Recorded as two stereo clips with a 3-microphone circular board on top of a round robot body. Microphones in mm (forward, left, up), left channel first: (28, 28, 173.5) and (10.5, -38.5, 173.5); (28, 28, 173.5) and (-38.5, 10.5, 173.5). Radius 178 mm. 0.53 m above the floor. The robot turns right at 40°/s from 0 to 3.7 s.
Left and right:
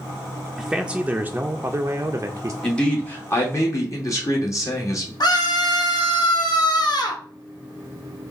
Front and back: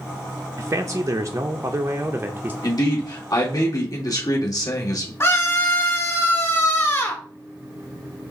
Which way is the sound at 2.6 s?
5° right.